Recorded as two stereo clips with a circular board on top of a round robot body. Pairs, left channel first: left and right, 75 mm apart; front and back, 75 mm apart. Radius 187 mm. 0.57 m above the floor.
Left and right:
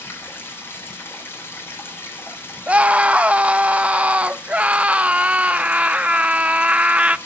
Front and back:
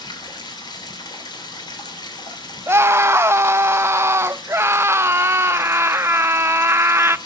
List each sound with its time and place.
0.0 s running water: 25° left, 3 m
2.7 s a scream: 155° right, 0.7 m